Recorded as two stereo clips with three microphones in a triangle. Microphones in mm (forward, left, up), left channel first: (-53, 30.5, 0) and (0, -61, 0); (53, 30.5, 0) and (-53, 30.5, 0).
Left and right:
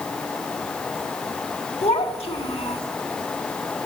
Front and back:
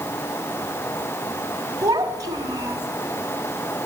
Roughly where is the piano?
I don't hear a piano.